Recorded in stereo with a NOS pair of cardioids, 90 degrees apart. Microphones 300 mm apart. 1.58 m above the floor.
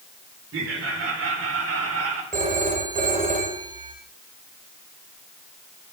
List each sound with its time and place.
0.5 s laughter: 45° right, 5 m; by 2.2 s 55° right, 5.5 m
2.3 s a phone ringing: 25° right, 4.5 m